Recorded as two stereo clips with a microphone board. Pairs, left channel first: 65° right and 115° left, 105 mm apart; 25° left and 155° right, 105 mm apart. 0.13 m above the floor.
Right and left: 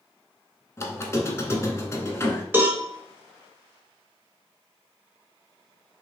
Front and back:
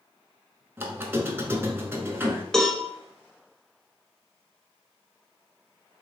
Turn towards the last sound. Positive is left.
turn(degrees=105)